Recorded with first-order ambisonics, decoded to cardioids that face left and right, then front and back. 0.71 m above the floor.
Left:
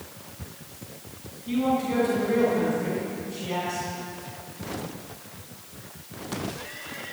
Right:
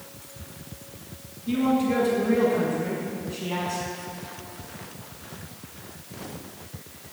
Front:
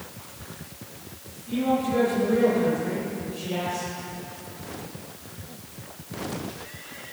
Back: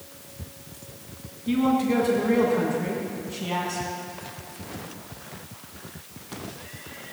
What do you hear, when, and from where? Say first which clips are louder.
1.5 s a man speaking: right 1 dB, back 2 dB; 170° left, 7.5 m